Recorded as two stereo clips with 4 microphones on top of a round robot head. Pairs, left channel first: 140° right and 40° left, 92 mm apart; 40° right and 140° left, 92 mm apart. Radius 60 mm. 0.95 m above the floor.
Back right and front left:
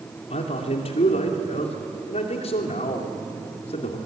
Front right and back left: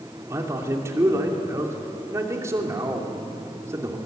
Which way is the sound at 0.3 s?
155° right.